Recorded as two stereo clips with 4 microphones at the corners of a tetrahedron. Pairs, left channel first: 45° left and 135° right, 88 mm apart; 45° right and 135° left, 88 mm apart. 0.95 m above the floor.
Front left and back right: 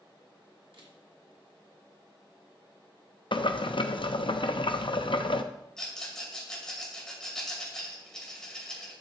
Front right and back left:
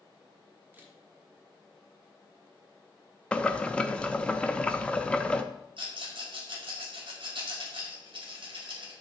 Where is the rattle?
130° left, 2 m.